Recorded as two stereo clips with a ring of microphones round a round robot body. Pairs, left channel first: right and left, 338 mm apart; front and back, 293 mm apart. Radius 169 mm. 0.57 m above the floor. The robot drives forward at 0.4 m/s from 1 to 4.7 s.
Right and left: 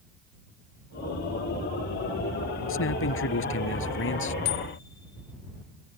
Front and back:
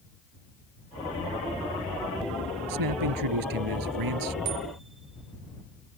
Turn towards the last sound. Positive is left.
turn(degrees=-120)